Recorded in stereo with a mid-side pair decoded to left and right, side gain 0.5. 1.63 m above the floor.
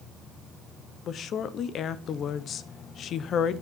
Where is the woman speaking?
60° left, 1.0 m.